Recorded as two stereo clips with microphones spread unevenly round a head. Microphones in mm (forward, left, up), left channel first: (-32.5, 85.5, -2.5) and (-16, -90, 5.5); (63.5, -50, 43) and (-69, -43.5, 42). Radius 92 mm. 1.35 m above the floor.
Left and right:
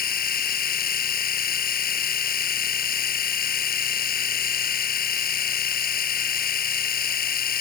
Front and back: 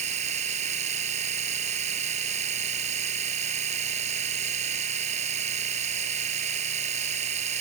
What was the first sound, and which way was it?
A machine running, 130° left.